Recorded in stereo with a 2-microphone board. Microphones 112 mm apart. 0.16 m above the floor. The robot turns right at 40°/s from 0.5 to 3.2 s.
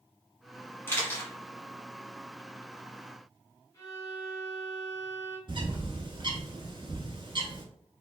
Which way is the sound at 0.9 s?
20° left (ahead or behind).